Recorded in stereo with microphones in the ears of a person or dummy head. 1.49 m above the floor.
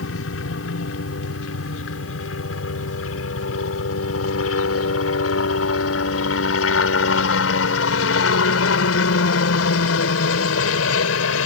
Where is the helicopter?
75° left (ahead or behind); by 11.5 s 80° left.